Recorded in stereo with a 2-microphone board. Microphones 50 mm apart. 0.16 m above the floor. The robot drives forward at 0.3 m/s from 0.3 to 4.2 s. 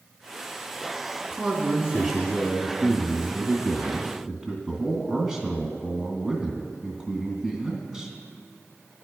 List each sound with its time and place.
1.4 s a man speaking: 5° right (ahead or behind), 1.9 m; by 8.1 s 10° right (ahead or behind), 1.4 m